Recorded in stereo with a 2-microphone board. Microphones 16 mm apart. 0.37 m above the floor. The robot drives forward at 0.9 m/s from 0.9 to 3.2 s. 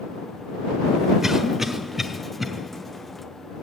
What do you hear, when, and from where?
1.2 s a cough: 25° right (ahead or behind), 1.0 m; by 2.5 s 15° right (ahead or behind), 1.8 m